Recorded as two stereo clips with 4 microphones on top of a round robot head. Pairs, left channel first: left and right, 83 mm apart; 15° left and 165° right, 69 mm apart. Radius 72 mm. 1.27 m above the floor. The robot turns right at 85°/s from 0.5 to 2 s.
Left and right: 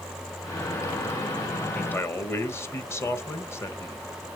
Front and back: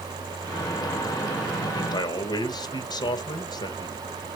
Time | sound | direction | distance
1.7 | a man speaking | 10° left | 1.4 m